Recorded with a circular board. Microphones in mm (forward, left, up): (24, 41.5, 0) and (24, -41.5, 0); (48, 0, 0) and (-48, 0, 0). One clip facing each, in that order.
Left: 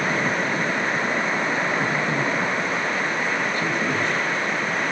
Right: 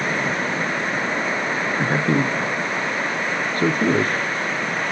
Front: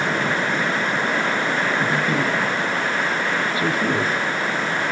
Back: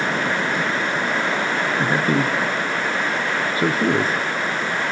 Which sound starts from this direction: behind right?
A man speaking, at 1.8 s.